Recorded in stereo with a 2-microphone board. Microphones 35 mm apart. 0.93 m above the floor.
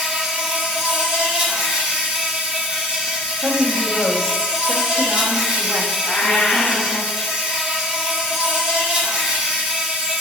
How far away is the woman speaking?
About 1.0 m.